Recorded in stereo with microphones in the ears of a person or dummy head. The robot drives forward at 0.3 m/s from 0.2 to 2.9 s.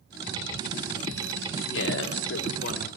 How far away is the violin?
No violin in this recording.